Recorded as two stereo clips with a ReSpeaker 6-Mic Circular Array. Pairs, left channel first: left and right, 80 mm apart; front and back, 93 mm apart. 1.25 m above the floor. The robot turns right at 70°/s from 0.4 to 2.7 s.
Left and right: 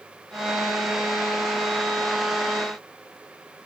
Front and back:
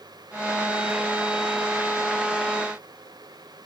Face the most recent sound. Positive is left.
No sound to turn to.